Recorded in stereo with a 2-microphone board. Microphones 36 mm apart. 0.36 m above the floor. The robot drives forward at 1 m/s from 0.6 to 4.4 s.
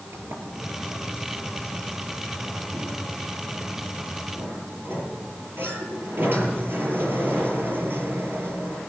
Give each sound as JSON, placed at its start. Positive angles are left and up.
{"t": 0.1, "sound": "a sliding door", "side_deg": -75, "distance_m": 6.0}